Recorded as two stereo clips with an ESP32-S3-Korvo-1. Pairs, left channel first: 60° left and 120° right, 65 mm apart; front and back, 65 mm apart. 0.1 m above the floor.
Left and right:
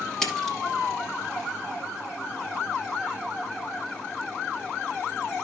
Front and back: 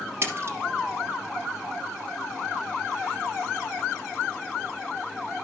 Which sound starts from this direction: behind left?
A splash, at 0.2 s.